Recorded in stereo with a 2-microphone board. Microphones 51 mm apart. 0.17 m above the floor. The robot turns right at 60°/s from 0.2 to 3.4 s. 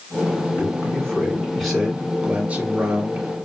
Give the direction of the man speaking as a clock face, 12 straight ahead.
8 o'clock.